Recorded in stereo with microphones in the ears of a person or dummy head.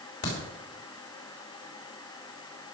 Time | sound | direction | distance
0.2 | a crack | 50° left (ahead or behind) | 4 m